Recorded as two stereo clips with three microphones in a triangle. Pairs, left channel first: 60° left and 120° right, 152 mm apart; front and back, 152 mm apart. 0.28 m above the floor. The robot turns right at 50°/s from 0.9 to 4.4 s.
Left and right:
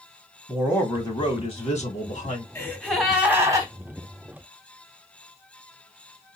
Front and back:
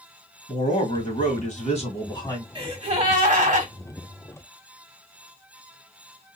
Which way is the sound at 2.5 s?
130° left.